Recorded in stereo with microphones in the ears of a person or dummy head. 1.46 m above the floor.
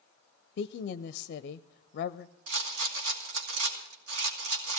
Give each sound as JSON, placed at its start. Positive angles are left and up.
{"t": 0.6, "sound": "a woman speaking", "side_deg": 55, "distance_m": 0.5}
{"t": 2.5, "sound": "a rattle", "side_deg": -80, "distance_m": 2.5}